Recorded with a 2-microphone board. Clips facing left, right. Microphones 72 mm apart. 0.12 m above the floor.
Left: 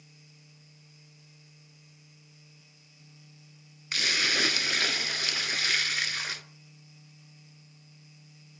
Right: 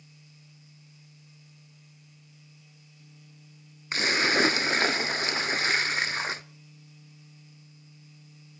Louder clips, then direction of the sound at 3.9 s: Right 5 dB; 30° right (ahead or behind).